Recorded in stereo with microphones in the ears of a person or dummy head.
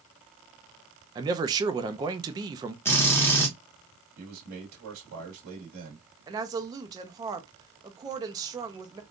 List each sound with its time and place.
1.1 s a man speaking: 20° right (ahead or behind), 0.5 m
2.9 s a drill: 15° left (ahead or behind), 1.0 m
4.2 s a man speaking: 80° right, 1.7 m
6.3 s a woman speaking: 20° right (ahead or behind), 0.7 m